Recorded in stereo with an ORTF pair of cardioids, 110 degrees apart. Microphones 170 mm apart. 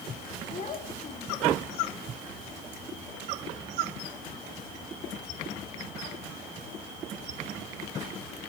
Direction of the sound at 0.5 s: 45° left.